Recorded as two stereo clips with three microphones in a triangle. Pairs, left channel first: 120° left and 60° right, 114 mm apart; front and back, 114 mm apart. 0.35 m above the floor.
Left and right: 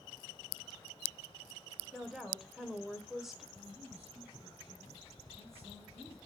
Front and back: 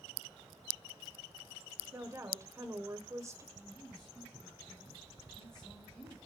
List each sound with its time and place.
1.9 s a woman speaking: 145° right, 1.2 m
3.5 s a man speaking: 85° right, 4 m